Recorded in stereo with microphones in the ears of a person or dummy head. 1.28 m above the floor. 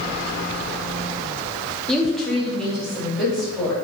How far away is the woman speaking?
About 0.6 m.